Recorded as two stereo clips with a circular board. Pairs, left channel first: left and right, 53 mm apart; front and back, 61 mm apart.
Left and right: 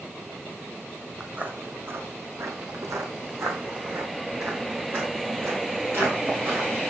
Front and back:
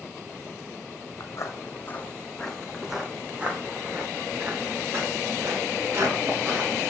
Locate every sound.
1.2 s footsteps: 25° right, 1.4 m; by 6.8 s 135° right, 4.5 m